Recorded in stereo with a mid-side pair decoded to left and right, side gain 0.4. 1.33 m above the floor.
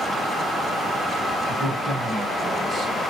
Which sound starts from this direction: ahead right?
A man speaking, at 1.5 s.